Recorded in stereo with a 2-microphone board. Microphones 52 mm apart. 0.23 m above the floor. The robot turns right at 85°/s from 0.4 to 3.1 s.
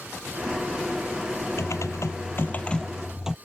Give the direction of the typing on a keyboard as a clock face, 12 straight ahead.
10 o'clock.